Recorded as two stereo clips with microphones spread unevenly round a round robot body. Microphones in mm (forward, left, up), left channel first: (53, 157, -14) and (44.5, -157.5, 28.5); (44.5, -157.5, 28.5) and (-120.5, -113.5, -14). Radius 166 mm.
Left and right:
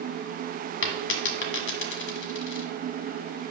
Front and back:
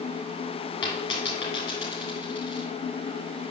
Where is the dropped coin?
35° left, 1.0 m.